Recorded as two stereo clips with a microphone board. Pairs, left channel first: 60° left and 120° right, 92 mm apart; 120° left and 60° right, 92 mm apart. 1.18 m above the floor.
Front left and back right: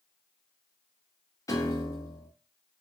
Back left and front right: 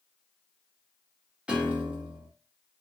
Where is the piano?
15° left, 0.9 m.